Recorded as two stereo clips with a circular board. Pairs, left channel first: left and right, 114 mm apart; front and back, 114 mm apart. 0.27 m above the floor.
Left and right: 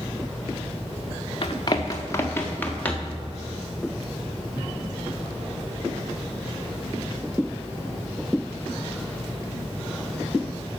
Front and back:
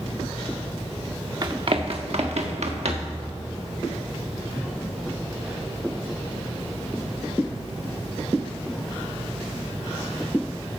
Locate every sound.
1.4 s running footsteps: 130° left, 1.1 m; by 3.2 s 170° left, 2.5 m